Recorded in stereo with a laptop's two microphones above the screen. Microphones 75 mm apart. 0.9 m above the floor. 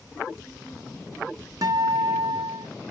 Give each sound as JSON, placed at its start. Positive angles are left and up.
{"t": 1.6, "sound": "a guitar", "side_deg": -55, "distance_m": 0.9}